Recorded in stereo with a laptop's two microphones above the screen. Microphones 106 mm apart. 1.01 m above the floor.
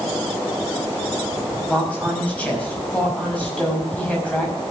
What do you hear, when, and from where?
1.7 s a woman speaking: 10° left (ahead or behind), 5.5 m